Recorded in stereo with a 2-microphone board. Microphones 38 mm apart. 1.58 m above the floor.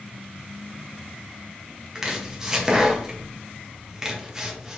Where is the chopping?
20° right (ahead or behind), 1.5 m.